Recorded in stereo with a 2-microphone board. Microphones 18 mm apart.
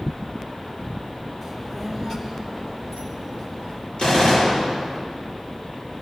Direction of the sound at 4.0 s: 70° left (ahead or behind).